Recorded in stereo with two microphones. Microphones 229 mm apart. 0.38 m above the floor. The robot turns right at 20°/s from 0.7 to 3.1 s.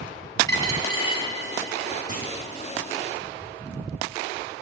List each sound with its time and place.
0.5 s a dropped coin: 15° left (ahead or behind), 0.8 m; by 1.2 s 25° left (ahead or behind), 0.8 m
2.1 s a clunk: 35° left (ahead or behind), 1.2 m